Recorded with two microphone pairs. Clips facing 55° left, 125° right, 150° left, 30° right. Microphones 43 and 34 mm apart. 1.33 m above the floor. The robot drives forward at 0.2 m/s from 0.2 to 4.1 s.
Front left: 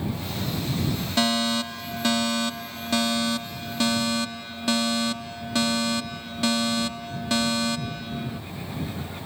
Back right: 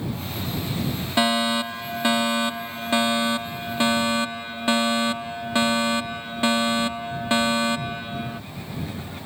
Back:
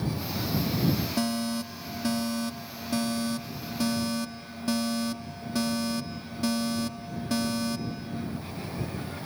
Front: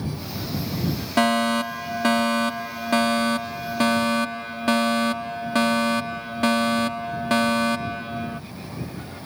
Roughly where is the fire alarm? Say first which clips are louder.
Back right 3 dB, front 9 dB; ahead right.